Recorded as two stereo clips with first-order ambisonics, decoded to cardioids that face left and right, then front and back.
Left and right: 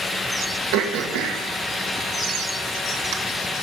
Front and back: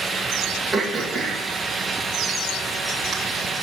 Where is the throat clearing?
95° right, 1.8 m.